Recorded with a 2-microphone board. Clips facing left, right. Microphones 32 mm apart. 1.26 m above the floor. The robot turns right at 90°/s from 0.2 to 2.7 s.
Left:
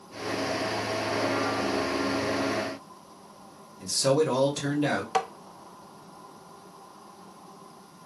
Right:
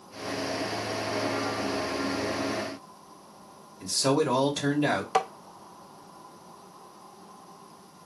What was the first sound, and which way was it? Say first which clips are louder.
A man speaking: left 1 dB; 10° right (ahead or behind).